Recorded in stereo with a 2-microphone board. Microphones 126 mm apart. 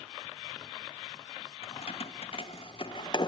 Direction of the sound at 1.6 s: 55° left (ahead or behind).